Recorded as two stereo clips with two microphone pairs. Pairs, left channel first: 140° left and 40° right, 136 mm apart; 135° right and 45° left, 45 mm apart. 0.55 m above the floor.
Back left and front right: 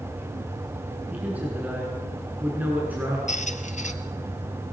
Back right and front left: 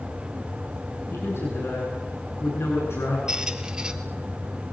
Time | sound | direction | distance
1.1 | a man speaking | 120° right | 8 m
3.3 | a squeak | 115° left | 1.9 m